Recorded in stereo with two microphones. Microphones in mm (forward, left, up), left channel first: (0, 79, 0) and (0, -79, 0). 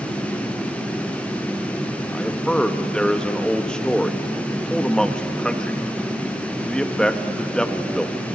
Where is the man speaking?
5° left (ahead or behind), 0.9 m.